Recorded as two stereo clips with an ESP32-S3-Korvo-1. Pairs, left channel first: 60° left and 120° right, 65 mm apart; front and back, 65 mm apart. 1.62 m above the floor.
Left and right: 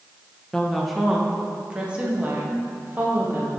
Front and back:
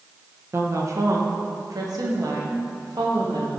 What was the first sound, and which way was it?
A woman speaking, 140° left.